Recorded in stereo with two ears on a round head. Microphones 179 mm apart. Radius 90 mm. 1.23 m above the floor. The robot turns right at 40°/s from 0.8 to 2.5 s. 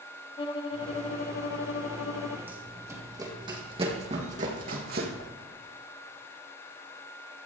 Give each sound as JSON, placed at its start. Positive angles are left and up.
{"t": 0.4, "sound": "a violin", "azimuth_deg": 25, "distance_m": 0.8}
{"t": 2.5, "sound": "running footsteps", "side_deg": -10, "distance_m": 4.5}
{"t": 5.2, "sound": "a whoosh", "side_deg": -70, "distance_m": 3.0}